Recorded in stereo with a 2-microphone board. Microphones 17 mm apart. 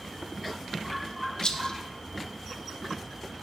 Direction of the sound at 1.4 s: 55° left (ahead or behind).